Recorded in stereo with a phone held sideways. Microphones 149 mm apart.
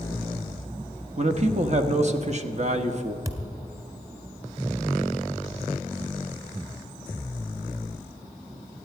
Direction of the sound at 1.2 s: 50° right (ahead or behind).